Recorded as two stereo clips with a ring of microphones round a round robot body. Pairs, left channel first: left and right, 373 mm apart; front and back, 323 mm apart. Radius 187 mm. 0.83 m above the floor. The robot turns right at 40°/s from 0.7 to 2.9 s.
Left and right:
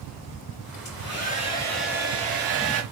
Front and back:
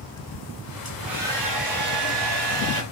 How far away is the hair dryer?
About 5.5 m.